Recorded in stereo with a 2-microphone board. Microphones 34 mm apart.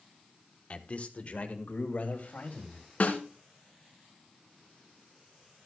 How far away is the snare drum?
About 2 m.